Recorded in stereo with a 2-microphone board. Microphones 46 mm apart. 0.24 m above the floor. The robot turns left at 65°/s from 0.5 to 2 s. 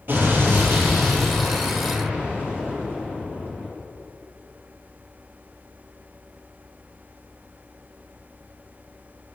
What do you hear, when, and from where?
0.1 s an explosion: 55° right, 4.5 m; by 3.7 s 150° right, 4.5 m